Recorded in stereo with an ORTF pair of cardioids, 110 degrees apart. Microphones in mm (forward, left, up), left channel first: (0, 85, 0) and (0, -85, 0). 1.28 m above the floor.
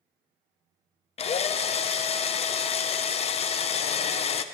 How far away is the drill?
About 0.7 m.